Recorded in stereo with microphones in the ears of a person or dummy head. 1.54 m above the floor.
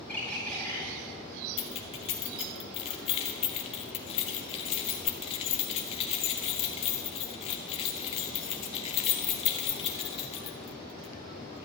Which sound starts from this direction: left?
Keys jangling, at 1.6 s.